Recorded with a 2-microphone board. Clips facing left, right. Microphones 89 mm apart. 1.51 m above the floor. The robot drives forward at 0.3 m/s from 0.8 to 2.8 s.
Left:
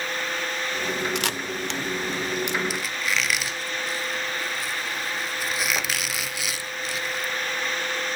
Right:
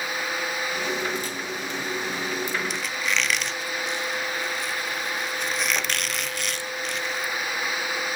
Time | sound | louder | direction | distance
1.1 | a camera shutter | left 2 dB | 65° left (ahead or behind) | 1.0 m
2.7 | a squeak | even | 5° left (ahead or behind) | 1.0 m